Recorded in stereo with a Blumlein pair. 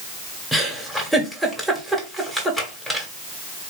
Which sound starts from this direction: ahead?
A giggle, at 0.5 s.